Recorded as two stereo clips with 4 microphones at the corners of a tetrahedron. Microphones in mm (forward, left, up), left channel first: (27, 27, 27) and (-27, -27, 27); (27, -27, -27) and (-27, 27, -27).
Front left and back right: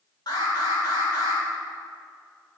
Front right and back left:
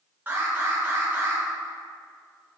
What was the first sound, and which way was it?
An alarm, 70° left.